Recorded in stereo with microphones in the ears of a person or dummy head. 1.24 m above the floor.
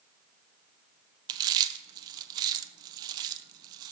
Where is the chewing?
25° right (ahead or behind), 0.5 m.